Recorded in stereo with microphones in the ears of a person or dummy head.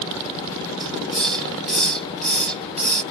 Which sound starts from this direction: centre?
A hiss, at 0.8 s.